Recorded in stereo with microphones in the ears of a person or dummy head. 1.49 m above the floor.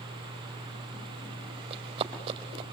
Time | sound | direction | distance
1.7 | running footsteps | 35° right (ahead or behind) | 4 m